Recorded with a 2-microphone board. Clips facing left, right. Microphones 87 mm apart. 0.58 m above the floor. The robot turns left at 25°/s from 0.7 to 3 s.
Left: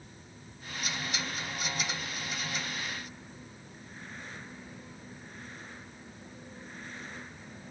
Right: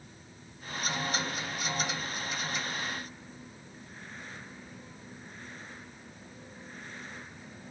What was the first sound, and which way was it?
Only background noise.